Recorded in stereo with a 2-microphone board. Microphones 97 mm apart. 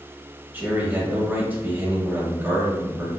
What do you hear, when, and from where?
0.5 s a man speaking: 20° right (ahead or behind), 1.2 m